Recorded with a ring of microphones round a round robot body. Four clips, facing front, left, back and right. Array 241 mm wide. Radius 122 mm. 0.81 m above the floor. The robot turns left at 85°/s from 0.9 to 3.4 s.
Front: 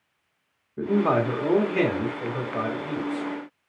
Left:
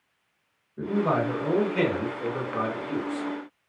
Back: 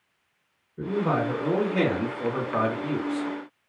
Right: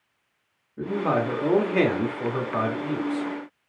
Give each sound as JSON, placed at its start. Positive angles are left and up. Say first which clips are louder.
{"t": 0.8, "sound": "a man speaking", "louder": "even, front 3 dB", "azimuth_deg": -10, "distance_m": 1.5}